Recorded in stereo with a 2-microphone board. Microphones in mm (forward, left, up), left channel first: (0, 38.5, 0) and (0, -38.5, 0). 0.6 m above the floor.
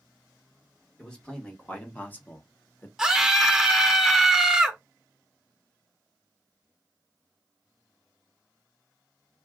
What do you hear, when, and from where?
1.0 s a man speaking: 10° left (ahead or behind), 1.6 m; by 2.9 s 25° left (ahead or behind), 0.9 m
3.0 s a scream: 5° right (ahead or behind), 0.6 m